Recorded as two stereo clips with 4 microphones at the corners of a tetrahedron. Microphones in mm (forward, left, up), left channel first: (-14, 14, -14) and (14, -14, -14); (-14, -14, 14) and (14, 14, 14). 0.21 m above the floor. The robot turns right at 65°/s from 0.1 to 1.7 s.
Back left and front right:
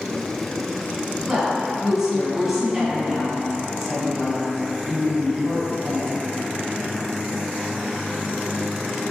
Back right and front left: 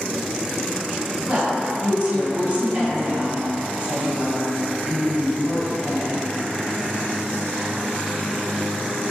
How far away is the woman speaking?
About 1.6 m.